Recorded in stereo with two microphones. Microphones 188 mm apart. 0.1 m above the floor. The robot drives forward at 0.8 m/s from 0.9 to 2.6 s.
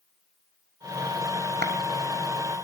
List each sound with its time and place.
1.6 s a clap: 60° right (ahead or behind), 3.5 m; by 1.7 s 65° right (ahead or behind), 3.5 m